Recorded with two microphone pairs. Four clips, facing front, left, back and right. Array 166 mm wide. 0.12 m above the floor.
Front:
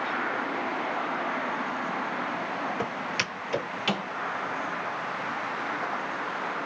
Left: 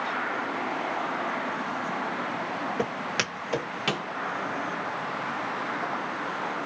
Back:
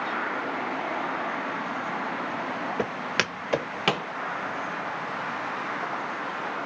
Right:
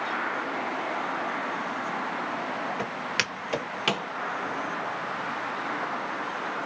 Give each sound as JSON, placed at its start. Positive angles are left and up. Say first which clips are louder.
{"t": 2.8, "sound": "footsteps", "louder": "left 2 dB, back 2 dB", "azimuth_deg": 155, "distance_m": 1.6}